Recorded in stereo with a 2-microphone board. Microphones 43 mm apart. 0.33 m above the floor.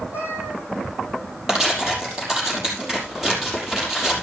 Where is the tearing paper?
15° right (ahead or behind), 5.5 m.